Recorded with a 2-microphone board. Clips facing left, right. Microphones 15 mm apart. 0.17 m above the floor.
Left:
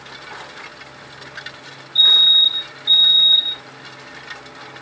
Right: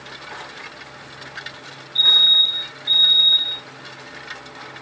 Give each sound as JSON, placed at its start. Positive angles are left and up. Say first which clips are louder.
{"t": 1.9, "sound": "a fire alarm", "louder": "left 2 dB", "side_deg": -10, "distance_m": 2.5}